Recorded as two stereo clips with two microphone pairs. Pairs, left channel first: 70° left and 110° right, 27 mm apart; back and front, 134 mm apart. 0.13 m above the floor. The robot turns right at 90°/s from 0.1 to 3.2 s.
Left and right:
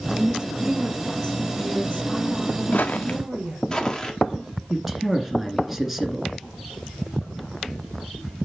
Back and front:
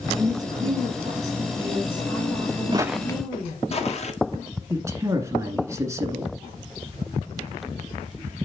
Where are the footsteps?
50° left, 0.7 m; by 4.1 s 140° left, 1.9 m.